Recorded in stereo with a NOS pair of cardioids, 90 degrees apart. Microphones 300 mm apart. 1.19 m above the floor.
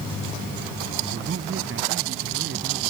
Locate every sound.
1.0 s a man speaking: 45° right; by 2.9 s 40° right